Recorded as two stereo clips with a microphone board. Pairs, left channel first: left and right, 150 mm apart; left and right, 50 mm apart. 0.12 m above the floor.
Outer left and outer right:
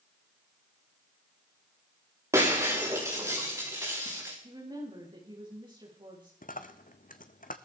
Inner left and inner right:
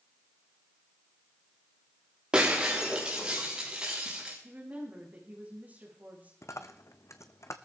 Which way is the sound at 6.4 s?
75° left (ahead or behind).